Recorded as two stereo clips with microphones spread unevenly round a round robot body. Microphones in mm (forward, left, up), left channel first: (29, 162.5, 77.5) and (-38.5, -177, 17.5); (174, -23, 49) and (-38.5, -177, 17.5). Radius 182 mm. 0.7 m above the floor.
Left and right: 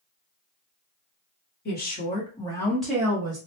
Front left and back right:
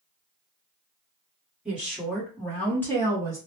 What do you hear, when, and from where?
1.6 s a woman speaking: 140° left, 1.2 m; by 3.4 s 45° right, 1.2 m